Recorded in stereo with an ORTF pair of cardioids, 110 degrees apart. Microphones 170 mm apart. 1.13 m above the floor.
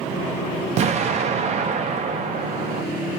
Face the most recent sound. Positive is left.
turn(degrees=-40)